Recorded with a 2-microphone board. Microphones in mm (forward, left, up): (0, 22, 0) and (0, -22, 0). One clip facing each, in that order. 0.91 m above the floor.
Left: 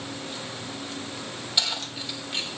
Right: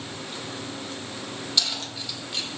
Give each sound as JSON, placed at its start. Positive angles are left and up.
{"t": 1.6, "sound": "keys jangling", "side_deg": 20, "distance_m": 4.0}